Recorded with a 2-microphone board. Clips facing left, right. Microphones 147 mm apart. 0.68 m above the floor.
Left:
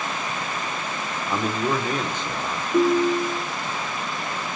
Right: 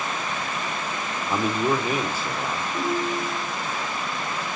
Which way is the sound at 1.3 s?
5° right (ahead or behind).